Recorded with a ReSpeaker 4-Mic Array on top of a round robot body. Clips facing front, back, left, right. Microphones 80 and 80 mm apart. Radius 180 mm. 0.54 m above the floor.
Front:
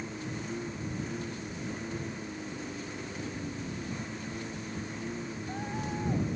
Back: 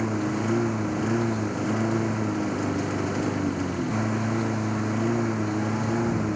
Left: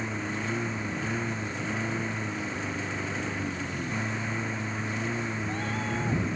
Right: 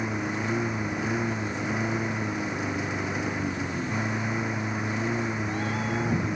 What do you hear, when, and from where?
0.0 s a lawn mower: 165° right